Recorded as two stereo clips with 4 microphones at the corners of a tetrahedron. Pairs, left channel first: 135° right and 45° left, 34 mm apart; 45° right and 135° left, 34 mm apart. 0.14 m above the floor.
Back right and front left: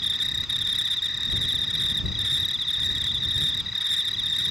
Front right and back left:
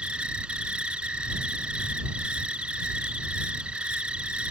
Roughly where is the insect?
Behind left.